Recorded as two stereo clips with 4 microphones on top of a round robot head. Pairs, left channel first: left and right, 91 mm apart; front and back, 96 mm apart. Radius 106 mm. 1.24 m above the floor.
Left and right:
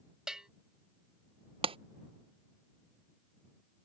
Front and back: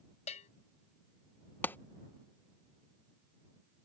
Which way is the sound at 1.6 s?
70° right.